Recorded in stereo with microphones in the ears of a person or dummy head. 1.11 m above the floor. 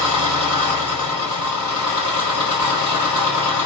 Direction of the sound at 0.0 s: 30° right (ahead or behind).